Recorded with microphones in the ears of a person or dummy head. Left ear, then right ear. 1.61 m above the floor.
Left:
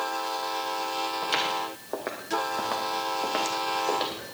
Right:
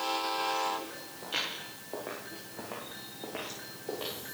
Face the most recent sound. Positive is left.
turn(degrees=55)  # may be behind; listen again after turning